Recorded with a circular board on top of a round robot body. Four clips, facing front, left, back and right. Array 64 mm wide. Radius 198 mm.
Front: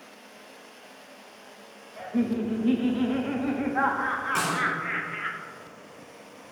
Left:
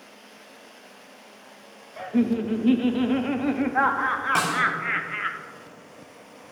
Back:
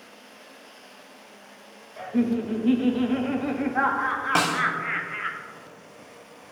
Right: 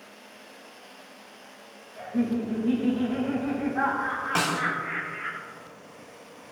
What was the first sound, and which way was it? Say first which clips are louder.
Laughter: left 4 dB, back 2 dB; 100° left.